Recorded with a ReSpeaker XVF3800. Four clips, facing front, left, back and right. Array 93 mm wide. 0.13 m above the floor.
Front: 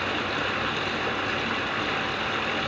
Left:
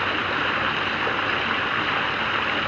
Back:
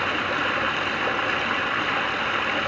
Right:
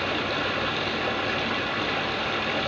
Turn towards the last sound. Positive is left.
turn(degrees=120)